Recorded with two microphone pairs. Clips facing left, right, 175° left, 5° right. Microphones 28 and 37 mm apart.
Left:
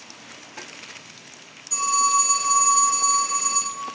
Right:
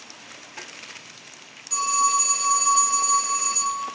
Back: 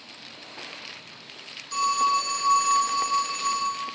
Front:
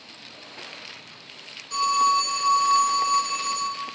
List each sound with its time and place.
1.7 s a phone ringing: 35° right, 1.4 m